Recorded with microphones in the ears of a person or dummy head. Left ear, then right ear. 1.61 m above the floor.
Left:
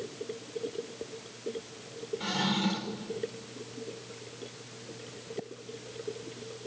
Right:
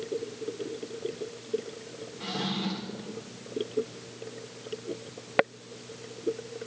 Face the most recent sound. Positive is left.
turn(degrees=5)  # may be behind; listen again after turning